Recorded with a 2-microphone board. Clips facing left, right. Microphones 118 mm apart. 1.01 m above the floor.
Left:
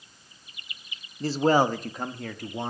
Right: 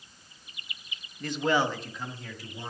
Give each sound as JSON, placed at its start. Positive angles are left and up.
{"t": 1.2, "sound": "a man speaking", "side_deg": 30, "distance_m": 0.8}